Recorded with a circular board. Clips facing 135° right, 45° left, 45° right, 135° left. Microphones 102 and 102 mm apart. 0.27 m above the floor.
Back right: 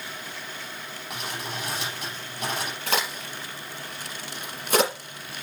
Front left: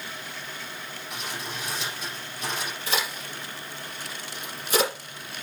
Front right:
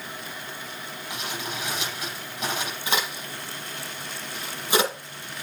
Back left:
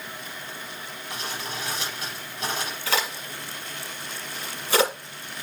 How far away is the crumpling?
About 7.5 m.